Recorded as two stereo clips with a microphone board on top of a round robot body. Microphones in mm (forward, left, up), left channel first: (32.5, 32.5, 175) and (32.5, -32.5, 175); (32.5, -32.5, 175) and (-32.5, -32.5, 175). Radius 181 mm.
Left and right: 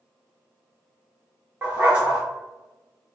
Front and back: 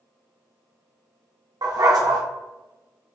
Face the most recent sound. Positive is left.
turn(degrees=-155)